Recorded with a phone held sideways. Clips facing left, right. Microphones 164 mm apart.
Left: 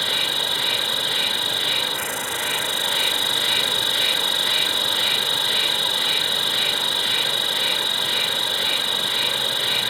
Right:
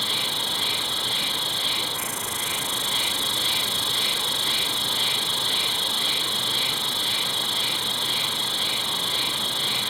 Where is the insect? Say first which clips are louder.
Left 3 dB; 75° left (ahead or behind).